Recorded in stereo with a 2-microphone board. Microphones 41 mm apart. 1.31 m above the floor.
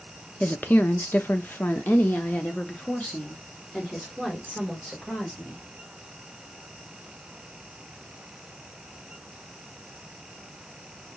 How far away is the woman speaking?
About 0.7 m.